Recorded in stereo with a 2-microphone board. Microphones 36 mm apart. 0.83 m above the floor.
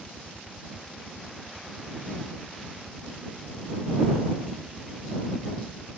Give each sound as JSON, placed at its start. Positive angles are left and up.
{"t": 0.0, "sound": "a helicopter", "side_deg": -75}